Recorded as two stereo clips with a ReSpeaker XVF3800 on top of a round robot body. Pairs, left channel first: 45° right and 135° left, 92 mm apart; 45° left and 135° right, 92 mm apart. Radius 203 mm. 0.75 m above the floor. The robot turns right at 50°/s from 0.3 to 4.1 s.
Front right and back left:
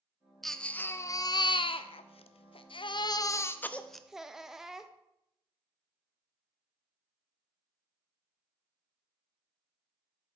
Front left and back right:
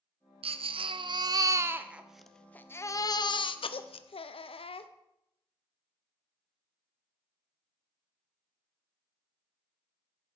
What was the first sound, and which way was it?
A baby crying, 135° right.